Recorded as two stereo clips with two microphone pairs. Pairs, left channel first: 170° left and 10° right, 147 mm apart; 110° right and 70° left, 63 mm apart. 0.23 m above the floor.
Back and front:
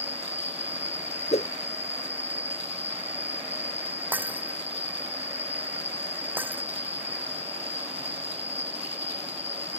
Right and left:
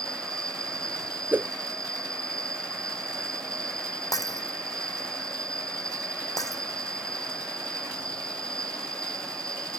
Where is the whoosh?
130° left.